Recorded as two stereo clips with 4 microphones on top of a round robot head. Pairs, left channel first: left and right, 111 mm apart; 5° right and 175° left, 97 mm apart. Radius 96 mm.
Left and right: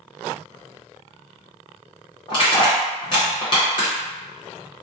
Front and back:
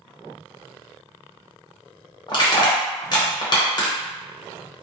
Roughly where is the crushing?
Ahead left.